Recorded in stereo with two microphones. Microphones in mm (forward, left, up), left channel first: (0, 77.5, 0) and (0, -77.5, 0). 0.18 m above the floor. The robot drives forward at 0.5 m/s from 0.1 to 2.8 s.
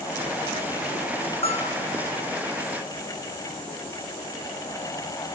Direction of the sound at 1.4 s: 40° left (ahead or behind).